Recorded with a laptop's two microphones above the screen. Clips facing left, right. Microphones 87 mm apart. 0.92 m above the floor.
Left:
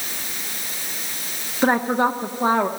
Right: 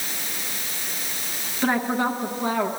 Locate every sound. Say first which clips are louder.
1.6 s a woman speaking: left 4 dB; 30° left (ahead or behind), 0.8 m